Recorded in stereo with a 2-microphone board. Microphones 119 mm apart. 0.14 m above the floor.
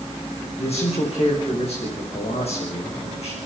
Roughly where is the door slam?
No door slam in this recording.